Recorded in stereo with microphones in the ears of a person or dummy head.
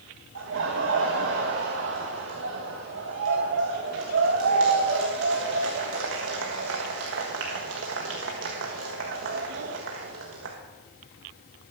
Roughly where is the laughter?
Right.